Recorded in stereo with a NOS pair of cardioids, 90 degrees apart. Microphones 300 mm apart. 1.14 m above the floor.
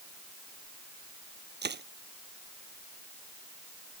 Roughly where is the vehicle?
I don't hear a vehicle.